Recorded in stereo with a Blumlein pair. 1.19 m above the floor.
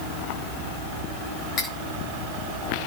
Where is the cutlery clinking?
25° left, 4 m.